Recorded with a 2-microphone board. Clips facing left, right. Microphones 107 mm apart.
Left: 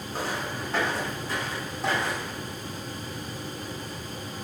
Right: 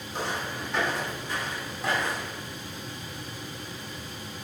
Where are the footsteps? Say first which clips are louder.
Left 1 dB; 40° left (ahead or behind), 3.5 m; by 2.4 s 30° left (ahead or behind), 5 m.